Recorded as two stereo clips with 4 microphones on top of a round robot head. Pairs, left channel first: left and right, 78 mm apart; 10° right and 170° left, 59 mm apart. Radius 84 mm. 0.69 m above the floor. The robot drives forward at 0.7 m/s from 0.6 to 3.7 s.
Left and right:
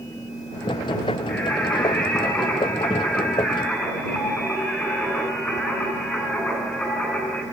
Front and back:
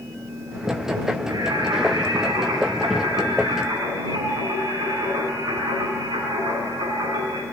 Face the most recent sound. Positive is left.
turn(degrees=165)